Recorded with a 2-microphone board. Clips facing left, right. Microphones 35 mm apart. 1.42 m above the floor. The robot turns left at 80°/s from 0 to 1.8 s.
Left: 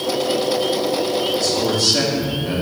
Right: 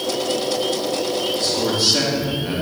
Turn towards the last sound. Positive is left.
turn(degrees=-165)